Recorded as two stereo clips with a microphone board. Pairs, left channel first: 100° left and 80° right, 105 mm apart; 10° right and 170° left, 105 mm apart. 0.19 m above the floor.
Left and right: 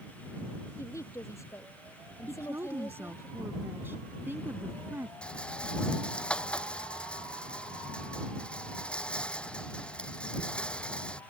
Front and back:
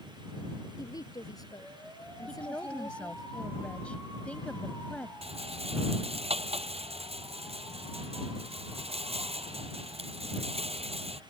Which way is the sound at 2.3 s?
70° right.